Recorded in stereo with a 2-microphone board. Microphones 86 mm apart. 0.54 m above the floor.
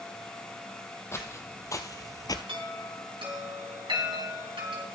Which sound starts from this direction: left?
Footsteps, at 1.1 s.